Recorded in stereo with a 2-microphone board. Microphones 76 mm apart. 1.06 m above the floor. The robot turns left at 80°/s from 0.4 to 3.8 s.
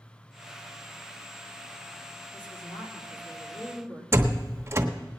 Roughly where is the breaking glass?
No breaking glass in this recording.